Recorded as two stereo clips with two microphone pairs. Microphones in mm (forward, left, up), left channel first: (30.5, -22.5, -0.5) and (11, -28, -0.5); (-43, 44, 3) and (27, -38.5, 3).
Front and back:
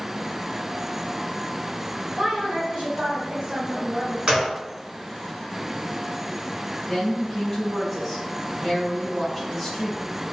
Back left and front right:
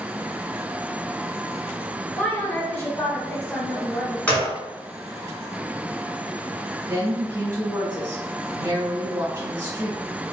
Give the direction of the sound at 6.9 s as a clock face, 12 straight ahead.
2 o'clock.